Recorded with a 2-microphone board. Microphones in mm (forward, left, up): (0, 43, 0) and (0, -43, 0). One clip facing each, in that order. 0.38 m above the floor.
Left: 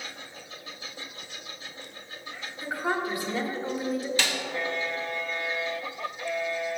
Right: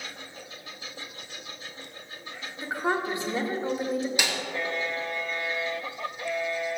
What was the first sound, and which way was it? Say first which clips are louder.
A woman speaking: right 1 dB; 20° right (ahead or behind).